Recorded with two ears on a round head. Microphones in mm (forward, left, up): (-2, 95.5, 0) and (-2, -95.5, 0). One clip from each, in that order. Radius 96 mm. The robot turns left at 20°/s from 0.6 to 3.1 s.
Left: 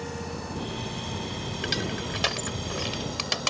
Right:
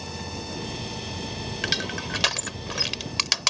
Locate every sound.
1.6 s crushing: 30° right (ahead or behind); by 3.5 s 55° right (ahead or behind)